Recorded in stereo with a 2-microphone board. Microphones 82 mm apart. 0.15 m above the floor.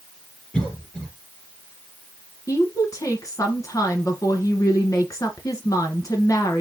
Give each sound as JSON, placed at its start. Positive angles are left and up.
{"t": 0.5, "sound": "a cough", "side_deg": 15, "distance_m": 3.0}
{"t": 2.5, "sound": "a woman speaking", "side_deg": 45, "distance_m": 1.9}